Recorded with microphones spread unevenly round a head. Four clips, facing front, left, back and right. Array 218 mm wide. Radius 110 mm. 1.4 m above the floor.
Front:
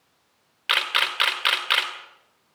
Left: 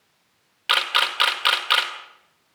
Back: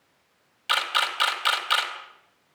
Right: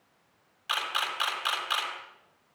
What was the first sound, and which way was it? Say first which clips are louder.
A camera shutter: left 8 dB, even; 55° left.